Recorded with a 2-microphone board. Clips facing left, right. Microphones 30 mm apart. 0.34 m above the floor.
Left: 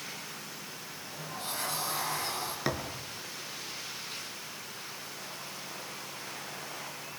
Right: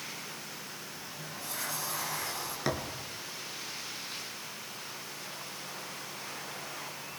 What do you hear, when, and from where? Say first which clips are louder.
0.9 s a sliding door: left 1 dB; 70° left (ahead or behind), 6.5 m
2.6 s a thud: right 2 dB; 5° left (ahead or behind), 2.5 m